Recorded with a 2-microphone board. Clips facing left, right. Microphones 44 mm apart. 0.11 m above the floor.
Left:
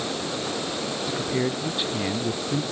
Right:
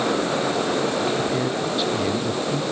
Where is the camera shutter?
No camera shutter in this recording.